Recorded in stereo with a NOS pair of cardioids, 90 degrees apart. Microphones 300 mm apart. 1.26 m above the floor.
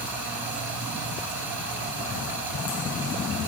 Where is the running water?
50° right, 3.5 m.